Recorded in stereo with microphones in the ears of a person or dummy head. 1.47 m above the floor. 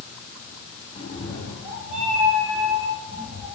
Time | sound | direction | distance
0.9 | a cat meowing | 30° left (ahead or behind) | 1.5 m